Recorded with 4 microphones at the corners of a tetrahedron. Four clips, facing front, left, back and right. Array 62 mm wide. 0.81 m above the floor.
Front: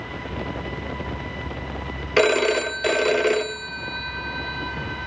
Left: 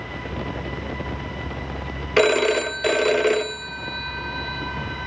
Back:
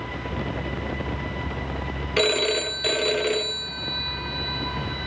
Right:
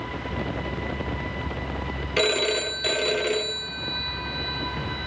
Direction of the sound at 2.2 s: 50° left.